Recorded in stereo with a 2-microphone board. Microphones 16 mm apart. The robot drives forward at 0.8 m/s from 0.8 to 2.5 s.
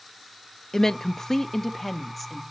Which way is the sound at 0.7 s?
35° left (ahead or behind).